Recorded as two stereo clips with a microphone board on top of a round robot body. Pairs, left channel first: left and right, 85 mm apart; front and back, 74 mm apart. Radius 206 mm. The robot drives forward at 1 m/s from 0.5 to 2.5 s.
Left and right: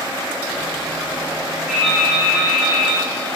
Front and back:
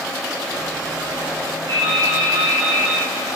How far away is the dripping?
About 4.5 m.